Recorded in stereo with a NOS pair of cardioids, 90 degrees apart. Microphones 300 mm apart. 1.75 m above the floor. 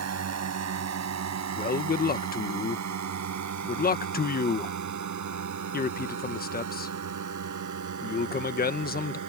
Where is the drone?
55° right; by 9.3 s 70° right.